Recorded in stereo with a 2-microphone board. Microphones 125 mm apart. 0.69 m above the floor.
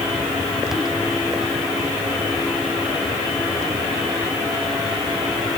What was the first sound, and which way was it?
Only background noise.